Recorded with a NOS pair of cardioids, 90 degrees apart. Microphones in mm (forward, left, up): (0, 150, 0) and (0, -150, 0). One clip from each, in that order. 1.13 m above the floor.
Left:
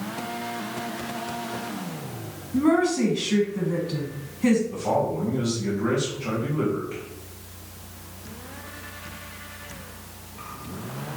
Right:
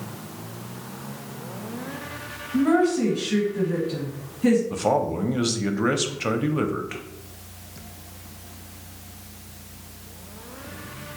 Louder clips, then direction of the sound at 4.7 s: Right 2 dB; 65° right.